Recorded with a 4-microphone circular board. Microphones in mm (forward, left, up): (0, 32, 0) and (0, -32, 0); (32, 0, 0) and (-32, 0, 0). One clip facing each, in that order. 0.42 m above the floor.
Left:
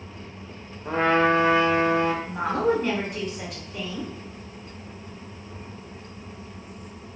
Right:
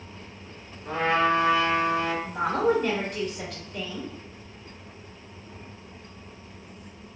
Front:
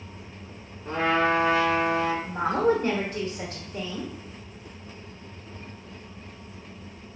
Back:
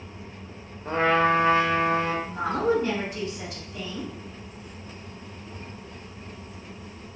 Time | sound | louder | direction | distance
0.8 | a trumpet | left 3 dB, back 2 dB | 135° left | 0.6 m
2.2 | a woman speaking | even, front 2 dB | 5° left | 1.1 m